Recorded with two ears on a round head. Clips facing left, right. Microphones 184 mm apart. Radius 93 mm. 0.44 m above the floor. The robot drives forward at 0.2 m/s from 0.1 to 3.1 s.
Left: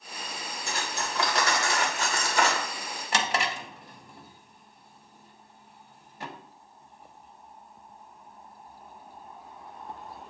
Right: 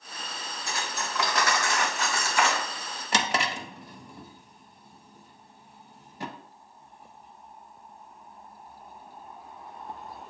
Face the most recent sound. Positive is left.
turn(degrees=-85)